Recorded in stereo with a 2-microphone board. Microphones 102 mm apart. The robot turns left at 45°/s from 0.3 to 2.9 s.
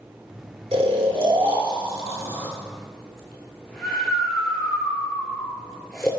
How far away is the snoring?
About 0.7 m.